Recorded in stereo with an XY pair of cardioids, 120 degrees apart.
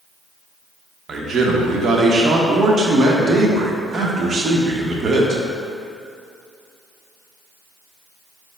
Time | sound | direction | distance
1.1 | a man speaking | 40° right | 0.8 m